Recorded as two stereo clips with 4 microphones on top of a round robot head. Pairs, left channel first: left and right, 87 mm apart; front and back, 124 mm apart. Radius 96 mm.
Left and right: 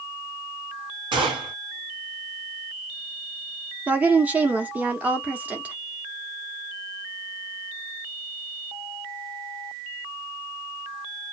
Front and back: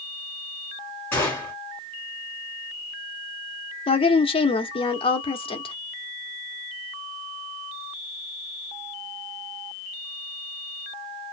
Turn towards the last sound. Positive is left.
turn(degrees=-20)